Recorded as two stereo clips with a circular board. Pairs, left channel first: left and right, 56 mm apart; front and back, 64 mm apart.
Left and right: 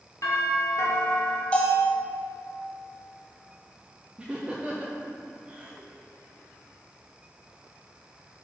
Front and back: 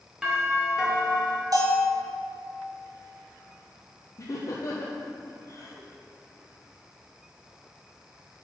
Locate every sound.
0.2 s a doorbell: 95° left, 1.6 m
1.5 s a bell: 155° left, 1.2 m
4.2 s laughter: 25° right, 0.5 m